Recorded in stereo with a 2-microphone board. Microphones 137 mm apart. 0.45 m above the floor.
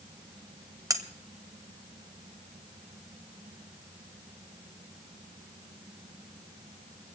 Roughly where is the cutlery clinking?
Right.